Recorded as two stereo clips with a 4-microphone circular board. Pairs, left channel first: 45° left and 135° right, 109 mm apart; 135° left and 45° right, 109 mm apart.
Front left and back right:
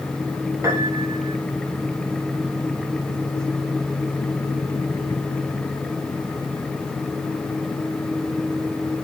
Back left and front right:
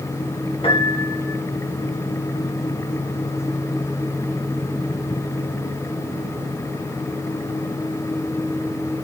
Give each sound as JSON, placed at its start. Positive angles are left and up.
{"t": 0.6, "sound": "a piano", "azimuth_deg": 165, "distance_m": 2.5}